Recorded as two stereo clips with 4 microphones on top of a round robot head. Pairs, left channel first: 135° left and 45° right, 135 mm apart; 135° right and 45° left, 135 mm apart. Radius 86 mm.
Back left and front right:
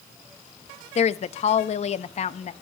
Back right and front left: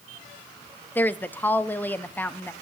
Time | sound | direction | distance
0.9 | a woman speaking | 150° left | 0.6 m